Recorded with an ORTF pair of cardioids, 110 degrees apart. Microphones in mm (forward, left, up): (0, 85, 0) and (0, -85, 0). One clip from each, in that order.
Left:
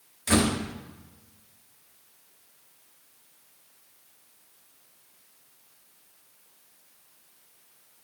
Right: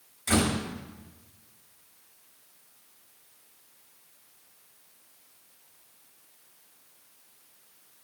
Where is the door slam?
25° left, 1.7 m.